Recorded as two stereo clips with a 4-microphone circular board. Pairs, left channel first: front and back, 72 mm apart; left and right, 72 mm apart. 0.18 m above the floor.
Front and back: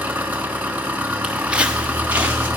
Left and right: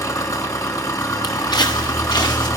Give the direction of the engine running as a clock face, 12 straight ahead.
8 o'clock.